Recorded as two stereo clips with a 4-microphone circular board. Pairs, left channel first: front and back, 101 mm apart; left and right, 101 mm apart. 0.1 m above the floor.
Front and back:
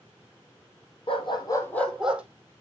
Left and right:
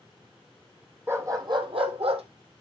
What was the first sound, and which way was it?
A dog barking, 25° right.